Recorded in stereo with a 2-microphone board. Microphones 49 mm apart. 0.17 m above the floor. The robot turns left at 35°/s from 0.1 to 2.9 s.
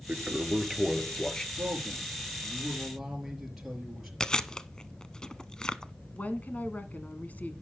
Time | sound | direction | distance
0.1 | a toilet flushing | 150° right | 0.6 m
1.6 | a man speaking | 130° right | 4 m
4.2 | chewing | 15° left (ahead or behind) | 0.6 m
6.1 | a woman speaking | 35° left (ahead or behind) | 1.3 m